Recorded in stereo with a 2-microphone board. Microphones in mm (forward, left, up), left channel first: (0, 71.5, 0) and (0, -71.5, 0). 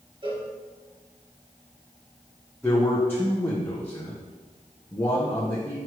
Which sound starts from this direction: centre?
A man speaking, at 2.6 s.